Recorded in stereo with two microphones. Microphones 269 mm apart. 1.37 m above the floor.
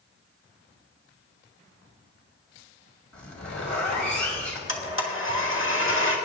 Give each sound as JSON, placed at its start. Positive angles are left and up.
{"t": 3.1, "sound": "a zipper", "side_deg": 80, "distance_m": 2.5}
{"t": 4.7, "sound": "a blender", "side_deg": 50, "distance_m": 1.4}